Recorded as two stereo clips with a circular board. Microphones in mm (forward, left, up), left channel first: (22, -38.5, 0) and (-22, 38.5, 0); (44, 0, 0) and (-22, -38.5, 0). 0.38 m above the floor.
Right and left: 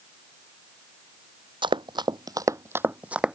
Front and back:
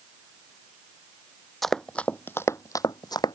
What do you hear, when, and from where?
1.6 s running footsteps: 115° left; by 3.4 s 40° left